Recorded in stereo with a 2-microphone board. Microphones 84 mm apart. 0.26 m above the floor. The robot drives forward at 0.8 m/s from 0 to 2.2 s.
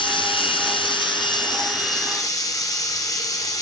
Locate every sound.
0.0 s running water: 70° left (ahead or behind), 1.4 m; by 3.6 s 40° left (ahead or behind), 1.9 m